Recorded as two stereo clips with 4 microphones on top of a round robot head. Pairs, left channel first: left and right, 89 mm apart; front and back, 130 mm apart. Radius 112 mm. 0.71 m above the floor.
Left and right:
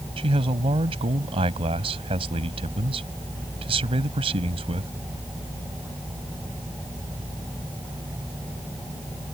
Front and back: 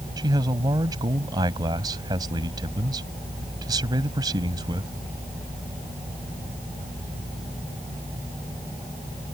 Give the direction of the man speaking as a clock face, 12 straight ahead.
4 o'clock.